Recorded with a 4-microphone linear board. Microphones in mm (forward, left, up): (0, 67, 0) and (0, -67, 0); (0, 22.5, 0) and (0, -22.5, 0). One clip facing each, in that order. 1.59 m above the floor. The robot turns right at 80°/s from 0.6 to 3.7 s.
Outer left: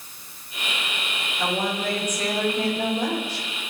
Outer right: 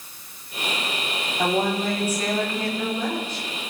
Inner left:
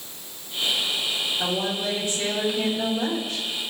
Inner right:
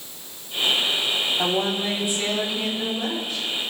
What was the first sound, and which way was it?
A woman speaking, 65° right.